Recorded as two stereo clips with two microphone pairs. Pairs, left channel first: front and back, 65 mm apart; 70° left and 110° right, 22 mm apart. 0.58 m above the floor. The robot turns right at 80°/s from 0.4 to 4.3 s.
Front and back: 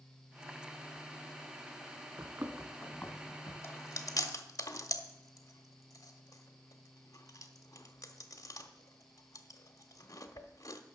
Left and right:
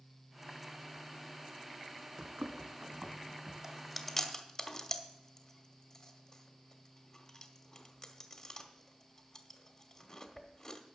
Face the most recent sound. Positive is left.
turn(degrees=20)